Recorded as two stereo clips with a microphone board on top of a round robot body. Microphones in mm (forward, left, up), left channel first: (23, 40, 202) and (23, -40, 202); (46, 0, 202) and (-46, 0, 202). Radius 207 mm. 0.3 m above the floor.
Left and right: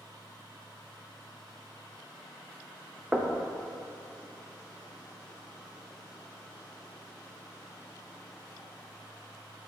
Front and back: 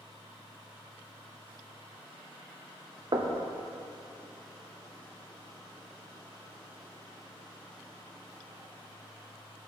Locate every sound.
3.1 s knocking: 160° right, 0.9 m